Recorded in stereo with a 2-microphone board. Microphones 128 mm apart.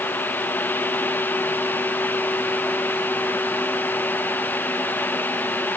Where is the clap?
I don't hear a clap.